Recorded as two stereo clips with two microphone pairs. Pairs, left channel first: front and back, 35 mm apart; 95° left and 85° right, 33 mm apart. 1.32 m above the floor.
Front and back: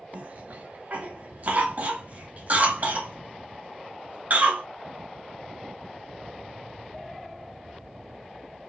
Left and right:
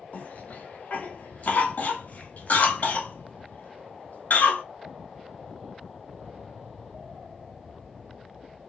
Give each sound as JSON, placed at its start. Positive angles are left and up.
{"t": 0.1, "sound": "a cough", "azimuth_deg": 135, "distance_m": 2.0}